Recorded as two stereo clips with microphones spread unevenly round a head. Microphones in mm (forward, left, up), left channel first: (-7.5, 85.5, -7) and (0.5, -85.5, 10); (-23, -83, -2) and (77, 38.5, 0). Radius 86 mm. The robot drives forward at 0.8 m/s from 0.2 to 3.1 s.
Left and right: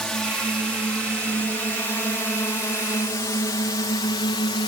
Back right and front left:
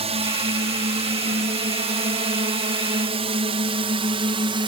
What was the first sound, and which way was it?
A drone, 10° left.